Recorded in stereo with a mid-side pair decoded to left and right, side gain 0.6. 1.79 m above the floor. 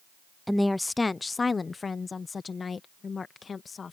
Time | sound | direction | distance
0.5 | a woman speaking | straight ahead | ?